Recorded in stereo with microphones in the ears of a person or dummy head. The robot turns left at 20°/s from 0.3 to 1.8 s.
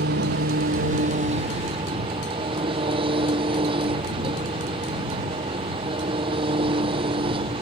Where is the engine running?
125° right; by 7.6 s 155° right.